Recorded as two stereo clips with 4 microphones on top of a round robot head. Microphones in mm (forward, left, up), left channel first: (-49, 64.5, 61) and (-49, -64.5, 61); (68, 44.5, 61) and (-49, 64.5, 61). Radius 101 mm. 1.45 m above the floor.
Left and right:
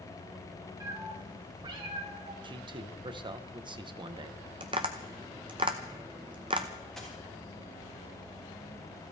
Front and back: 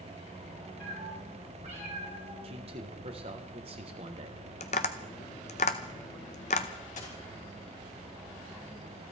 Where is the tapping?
35° right, 0.6 m.